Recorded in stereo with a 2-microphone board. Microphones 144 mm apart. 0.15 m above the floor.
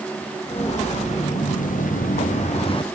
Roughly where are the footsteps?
Left.